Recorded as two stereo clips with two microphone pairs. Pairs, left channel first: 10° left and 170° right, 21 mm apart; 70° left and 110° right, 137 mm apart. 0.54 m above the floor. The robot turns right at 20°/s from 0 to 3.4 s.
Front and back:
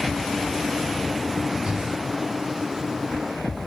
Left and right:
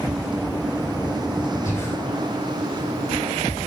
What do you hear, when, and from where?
1.6 s breathing: 140° left, 2.5 m; by 1.9 s 145° left, 2.5 m